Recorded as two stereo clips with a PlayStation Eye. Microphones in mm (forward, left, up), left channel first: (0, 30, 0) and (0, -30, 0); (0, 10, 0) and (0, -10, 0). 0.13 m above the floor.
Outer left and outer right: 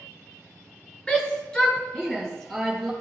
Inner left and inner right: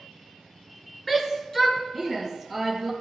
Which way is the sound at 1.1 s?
20° left (ahead or behind).